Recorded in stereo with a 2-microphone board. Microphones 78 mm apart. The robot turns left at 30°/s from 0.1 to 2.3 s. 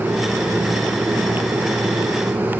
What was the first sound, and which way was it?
Only background noise.